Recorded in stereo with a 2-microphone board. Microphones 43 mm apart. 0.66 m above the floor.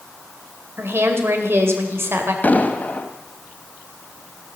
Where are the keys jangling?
I don't hear keys jangling.